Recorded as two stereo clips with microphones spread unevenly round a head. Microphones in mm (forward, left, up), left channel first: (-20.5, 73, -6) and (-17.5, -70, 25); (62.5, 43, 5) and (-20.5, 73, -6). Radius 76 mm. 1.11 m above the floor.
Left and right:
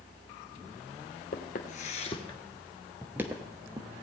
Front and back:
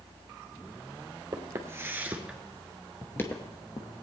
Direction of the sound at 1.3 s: 110° left.